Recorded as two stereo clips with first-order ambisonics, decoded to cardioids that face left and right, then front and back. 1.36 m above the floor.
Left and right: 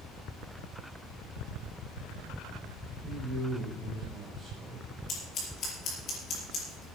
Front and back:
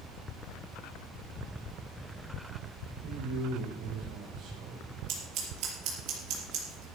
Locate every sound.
3.0 s a man speaking: 170° left, 4 m
5.1 s scissors: 145° left, 5 m